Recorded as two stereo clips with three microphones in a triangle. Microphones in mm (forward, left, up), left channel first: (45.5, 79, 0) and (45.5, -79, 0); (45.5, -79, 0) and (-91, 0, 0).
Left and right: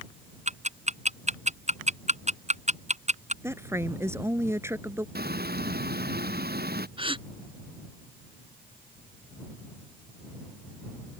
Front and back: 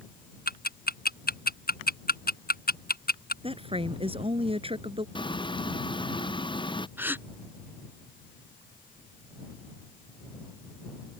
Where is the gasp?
135° right.